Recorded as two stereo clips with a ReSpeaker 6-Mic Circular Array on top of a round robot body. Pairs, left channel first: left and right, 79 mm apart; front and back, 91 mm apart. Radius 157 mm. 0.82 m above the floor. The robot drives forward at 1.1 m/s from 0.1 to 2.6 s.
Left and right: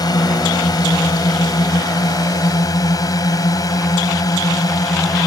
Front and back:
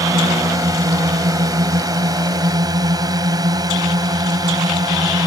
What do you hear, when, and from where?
0.0 s a drone: 125° left; by 5.3 s 130° left